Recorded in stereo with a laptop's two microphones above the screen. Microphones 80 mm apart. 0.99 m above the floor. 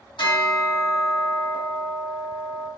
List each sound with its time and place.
0.2 s a bell: 85° left, 1.4 m